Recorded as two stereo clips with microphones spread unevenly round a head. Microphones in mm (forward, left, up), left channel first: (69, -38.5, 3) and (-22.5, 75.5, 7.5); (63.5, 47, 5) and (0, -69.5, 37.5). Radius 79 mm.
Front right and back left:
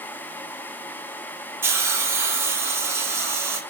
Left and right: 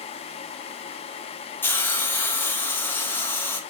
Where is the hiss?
70° left, 0.8 m.